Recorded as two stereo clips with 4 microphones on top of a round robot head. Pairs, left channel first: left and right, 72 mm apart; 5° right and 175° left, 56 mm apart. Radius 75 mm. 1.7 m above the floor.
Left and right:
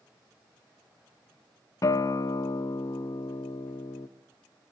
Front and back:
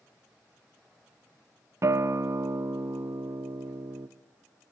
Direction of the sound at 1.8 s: 135° left.